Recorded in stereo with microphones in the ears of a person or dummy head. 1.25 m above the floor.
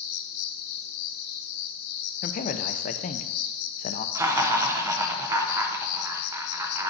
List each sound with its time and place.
0.0 s an insect: 80° left, 0.9 m
2.2 s a man speaking: 40° left (ahead or behind), 0.6 m
4.2 s laughter: 15° right (ahead or behind), 0.8 m